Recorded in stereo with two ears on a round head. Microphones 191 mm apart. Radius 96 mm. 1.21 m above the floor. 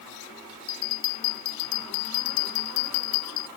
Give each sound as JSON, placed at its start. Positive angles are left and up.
{"t": 0.7, "sound": "a bell", "side_deg": 75}